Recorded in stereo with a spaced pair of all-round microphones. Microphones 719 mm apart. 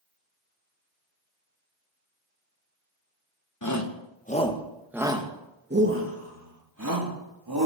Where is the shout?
25° left (ahead or behind), 1.4 m; by 7.7 s 30° right (ahead or behind), 3 m.